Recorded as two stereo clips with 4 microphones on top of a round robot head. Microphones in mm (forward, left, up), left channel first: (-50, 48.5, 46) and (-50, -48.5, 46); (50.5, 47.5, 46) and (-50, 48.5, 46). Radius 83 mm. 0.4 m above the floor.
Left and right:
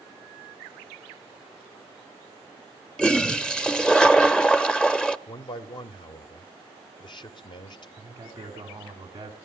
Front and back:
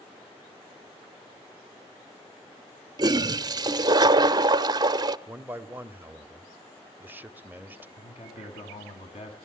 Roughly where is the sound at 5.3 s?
Left.